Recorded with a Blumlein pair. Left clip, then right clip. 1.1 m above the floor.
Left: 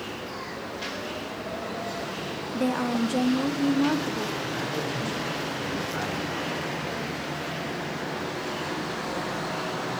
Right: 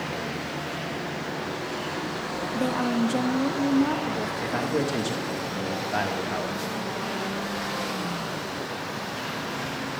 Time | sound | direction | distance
2.5 | a woman speaking | 5° right | 0.6 m
4.4 | a man speaking | 40° right | 1.9 m